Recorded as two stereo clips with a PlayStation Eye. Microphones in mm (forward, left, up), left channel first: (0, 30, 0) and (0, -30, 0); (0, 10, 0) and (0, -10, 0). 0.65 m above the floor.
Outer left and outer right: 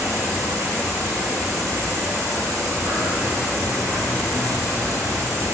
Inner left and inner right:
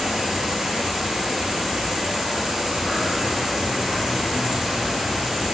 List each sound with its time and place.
0.0 s an insect: 50° right (ahead or behind), 0.8 m